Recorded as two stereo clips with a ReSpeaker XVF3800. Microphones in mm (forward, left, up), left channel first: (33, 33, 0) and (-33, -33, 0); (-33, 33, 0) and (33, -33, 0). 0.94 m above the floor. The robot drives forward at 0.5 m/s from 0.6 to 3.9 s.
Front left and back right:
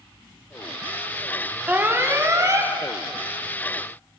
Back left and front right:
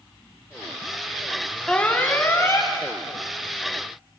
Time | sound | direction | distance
1.7 | an alarm | 165° right | 0.6 m